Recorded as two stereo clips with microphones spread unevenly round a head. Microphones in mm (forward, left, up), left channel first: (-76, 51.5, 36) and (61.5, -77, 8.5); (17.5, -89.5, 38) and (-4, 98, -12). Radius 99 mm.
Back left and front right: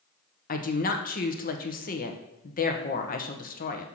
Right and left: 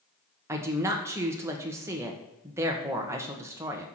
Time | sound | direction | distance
0.5 | a woman speaking | straight behind | 1.2 m